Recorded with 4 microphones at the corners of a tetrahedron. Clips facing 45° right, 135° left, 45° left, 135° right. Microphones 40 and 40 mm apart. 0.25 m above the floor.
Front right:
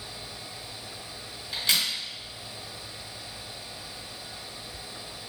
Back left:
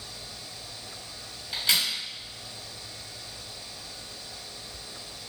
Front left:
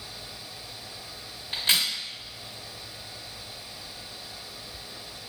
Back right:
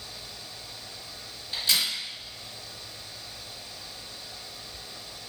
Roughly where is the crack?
Ahead left.